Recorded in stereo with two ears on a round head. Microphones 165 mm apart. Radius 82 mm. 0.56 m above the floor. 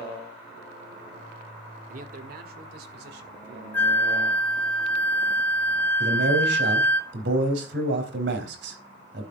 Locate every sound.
1.9 s a man speaking: 45° right (ahead or behind), 1.5 m; by 3.6 s 65° right (ahead or behind), 3 m
3.7 s a flute: 10° left (ahead or behind), 1.2 m
6.0 s a man speaking: 75° right (ahead or behind), 4 m